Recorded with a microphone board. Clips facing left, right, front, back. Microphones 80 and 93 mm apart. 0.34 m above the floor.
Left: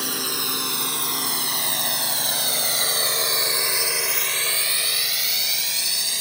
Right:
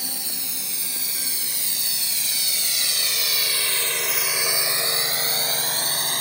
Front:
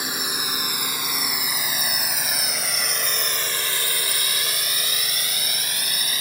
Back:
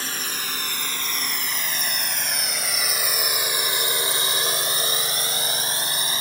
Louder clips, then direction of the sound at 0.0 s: Left 9 dB, front 2 dB; 75° left.